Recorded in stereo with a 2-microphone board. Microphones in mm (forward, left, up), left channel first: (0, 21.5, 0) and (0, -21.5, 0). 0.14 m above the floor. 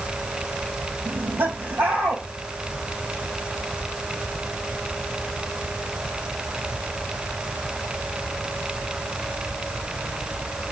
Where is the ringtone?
I don't hear a ringtone.